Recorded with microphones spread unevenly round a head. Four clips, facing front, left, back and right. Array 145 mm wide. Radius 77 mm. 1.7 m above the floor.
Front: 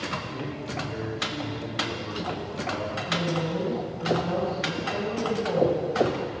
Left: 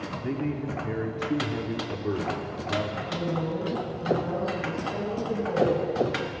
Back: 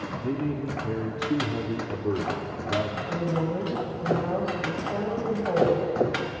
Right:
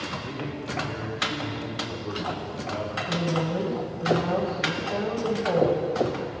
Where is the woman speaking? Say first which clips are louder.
Right 6 dB, front 2 dB; 115° right, 9.5 m.